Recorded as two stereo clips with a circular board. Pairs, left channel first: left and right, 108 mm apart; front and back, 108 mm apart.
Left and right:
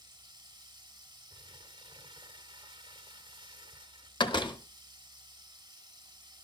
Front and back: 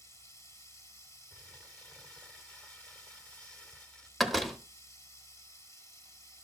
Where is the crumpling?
75° right, 1.2 m.